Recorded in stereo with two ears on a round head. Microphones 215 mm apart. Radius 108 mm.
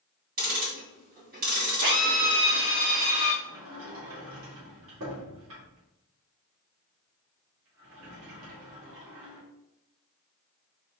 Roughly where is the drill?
Right.